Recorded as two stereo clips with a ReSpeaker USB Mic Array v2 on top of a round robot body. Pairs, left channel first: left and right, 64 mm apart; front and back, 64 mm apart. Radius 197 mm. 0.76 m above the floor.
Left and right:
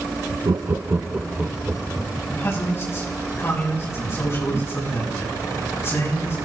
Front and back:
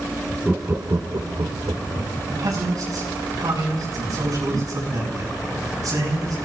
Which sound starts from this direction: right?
Laughter, at 0.5 s.